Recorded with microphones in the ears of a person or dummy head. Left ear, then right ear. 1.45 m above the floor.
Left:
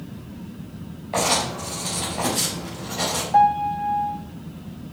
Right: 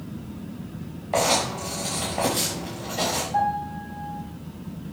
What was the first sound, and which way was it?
Writing, 10° right (ahead or behind).